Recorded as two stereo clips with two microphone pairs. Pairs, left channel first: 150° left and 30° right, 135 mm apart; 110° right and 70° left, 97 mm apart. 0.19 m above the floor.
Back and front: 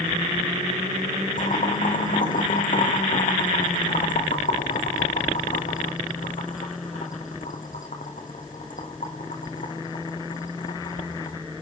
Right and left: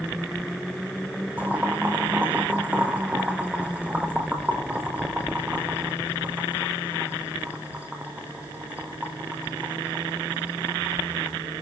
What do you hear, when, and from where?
1.4 s boiling: 145° left, 2.5 m